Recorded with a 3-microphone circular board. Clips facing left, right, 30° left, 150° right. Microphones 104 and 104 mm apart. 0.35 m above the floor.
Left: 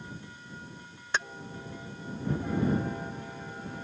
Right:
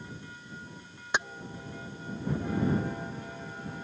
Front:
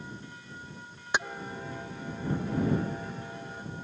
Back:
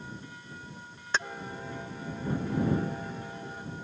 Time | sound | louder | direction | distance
1.1 | keys jangling | right 1 dB, front 1 dB | 30° right | ?